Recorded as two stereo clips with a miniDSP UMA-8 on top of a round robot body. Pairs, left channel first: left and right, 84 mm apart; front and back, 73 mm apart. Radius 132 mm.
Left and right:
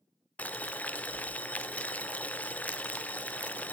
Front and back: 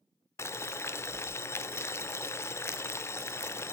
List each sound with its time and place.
0.4 s boiling: 25° left, 1.0 m